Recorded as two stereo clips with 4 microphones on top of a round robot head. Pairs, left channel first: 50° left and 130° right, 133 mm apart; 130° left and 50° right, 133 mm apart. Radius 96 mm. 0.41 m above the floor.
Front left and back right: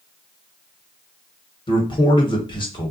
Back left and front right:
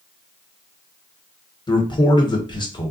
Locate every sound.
1.7 s a man speaking: 85° left, 1.3 m